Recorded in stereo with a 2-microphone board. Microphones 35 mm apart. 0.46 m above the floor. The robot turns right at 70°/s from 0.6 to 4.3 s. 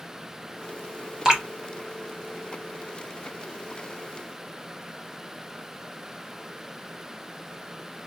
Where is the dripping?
20° right (ahead or behind), 0.9 m; by 1.4 s 15° right (ahead or behind), 0.9 m.